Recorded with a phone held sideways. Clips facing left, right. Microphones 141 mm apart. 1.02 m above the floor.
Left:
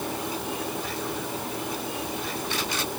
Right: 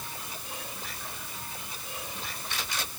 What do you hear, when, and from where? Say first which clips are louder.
0.0 s a fan: left 13 dB; 85° left